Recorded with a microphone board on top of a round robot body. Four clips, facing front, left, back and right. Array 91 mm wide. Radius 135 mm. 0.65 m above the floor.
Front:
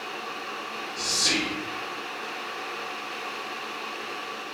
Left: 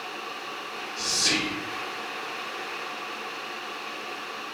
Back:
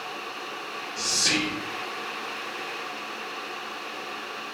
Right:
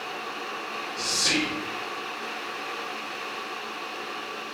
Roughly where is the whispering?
Behind.